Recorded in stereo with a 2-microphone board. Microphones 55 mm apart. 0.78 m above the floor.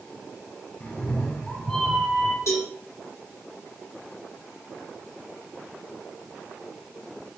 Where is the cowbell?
60° left (ahead or behind), 2.5 m.